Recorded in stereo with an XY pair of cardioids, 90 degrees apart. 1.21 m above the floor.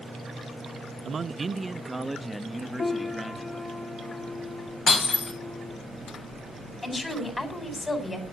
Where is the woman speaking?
30° left, 4.5 m.